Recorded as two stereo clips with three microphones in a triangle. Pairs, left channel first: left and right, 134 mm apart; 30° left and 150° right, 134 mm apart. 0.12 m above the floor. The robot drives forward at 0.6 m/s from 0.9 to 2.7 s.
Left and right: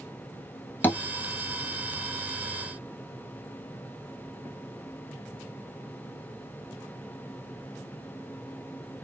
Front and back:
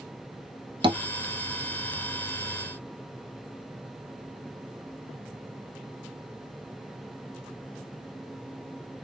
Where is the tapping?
165° left, 0.8 m.